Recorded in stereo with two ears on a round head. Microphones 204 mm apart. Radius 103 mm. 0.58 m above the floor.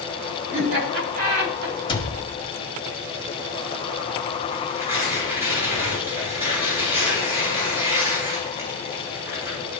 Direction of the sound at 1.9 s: 20° left (ahead or behind).